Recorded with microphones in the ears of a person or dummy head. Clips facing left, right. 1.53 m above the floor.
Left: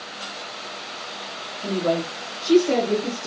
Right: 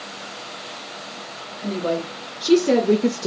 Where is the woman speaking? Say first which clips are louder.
Left 1 dB; 45° right (ahead or behind), 1.6 m; by 3.3 s 65° right (ahead or behind), 0.5 m.